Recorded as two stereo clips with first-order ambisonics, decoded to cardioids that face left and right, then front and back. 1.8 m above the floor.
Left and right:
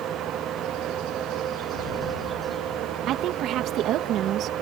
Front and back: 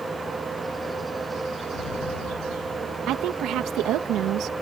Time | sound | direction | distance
1.7 | an explosion | 45° left | ?
3.1 | a woman speaking | 140° right | ?